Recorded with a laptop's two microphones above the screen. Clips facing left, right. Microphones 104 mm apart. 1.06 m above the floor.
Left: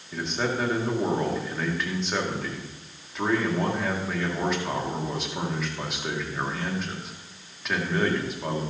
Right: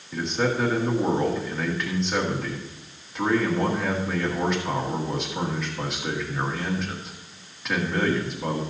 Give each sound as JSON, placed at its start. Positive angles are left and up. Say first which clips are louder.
{"t": 0.1, "sound": "a man speaking", "louder": "right 3 dB", "side_deg": 0, "distance_m": 1.8}